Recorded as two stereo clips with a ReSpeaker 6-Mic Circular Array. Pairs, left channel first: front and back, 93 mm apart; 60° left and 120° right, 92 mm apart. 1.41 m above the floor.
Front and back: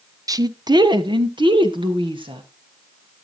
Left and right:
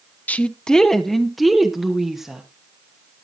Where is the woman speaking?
130° left, 0.7 m; by 2.4 s 155° left, 2.5 m.